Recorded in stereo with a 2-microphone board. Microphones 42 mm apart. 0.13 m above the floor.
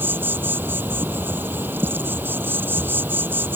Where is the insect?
50° right (ahead or behind).